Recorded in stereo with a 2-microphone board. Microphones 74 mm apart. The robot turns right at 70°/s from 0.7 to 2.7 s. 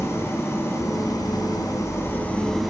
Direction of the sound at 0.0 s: 45° left.